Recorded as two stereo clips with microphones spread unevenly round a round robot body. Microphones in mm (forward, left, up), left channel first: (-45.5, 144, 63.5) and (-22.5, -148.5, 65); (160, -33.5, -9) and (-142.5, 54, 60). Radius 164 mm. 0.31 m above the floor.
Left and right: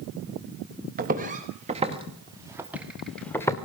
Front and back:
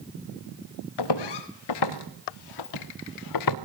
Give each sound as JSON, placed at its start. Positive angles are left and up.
{"t": 1.0, "sound": "footsteps", "azimuth_deg": -20, "distance_m": 3.5}